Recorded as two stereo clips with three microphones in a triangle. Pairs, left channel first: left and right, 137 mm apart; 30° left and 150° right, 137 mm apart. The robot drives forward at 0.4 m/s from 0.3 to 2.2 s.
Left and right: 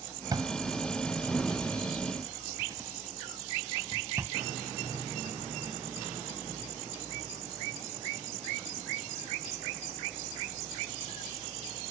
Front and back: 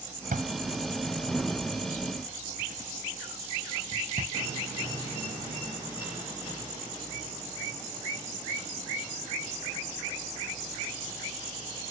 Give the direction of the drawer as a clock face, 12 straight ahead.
5 o'clock.